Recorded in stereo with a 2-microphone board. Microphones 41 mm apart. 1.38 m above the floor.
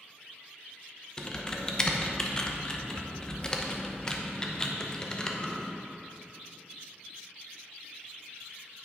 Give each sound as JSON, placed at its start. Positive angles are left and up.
{"t": 1.2, "sound": "typing on a keyboard", "side_deg": 15, "distance_m": 0.8}